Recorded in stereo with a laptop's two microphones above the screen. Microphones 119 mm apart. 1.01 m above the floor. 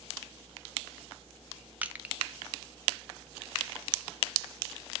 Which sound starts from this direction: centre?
Crushing, at 1.8 s.